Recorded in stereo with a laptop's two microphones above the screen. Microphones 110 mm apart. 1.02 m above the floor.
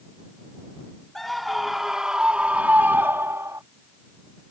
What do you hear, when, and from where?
1.1 s a scream: centre (ahead or behind); by 3.6 s 30° right (ahead or behind)